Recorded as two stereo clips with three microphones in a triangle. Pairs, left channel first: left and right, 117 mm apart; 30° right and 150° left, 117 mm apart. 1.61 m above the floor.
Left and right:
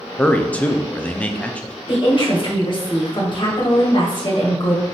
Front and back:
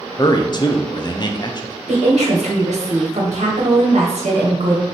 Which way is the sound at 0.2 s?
15° left.